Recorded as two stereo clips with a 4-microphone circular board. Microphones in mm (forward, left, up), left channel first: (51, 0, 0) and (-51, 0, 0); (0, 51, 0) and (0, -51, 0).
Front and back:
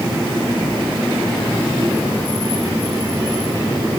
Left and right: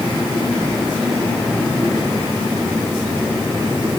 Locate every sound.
Only background noise.